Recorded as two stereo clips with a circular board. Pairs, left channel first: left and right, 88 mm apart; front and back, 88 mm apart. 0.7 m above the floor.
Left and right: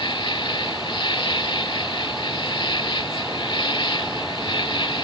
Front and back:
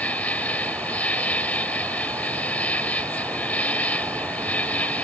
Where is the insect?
70° left.